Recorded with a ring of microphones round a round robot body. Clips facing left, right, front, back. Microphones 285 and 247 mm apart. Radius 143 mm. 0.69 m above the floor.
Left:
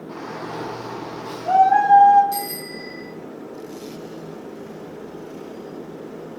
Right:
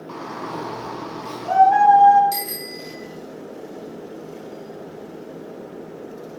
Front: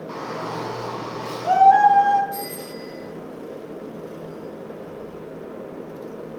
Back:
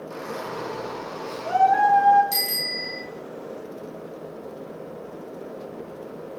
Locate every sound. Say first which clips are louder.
0.1 s a shout: right 1 dB, front 2 dB; 15° right, 5.5 m
2.3 s a bicycle bell: left 1 dB, front 2 dB; 145° right, 8.5 m